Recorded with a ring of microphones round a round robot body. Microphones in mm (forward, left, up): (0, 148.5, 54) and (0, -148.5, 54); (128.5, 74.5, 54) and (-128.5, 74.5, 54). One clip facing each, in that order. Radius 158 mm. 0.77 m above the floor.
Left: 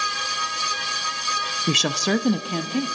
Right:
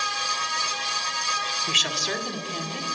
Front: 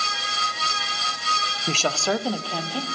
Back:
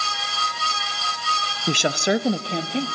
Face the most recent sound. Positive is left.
turn(degrees=115)